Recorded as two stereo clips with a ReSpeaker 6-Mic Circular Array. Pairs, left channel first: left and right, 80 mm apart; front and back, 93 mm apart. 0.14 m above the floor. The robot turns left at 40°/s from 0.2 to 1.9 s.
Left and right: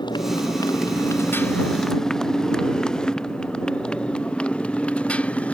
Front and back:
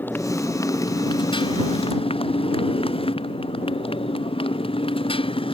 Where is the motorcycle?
70° left; by 5.5 s 15° left.